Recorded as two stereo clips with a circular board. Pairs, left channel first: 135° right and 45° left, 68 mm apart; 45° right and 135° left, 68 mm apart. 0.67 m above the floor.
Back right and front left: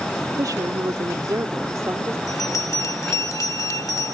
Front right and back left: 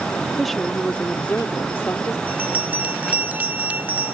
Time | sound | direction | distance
0.4 | a woman speaking | 45° left | ?
2.3 | a bell | 165° right | ?